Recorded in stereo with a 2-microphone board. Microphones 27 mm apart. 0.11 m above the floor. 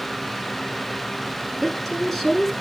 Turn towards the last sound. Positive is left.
turn(degrees=10)  # may be behind; listen again after turning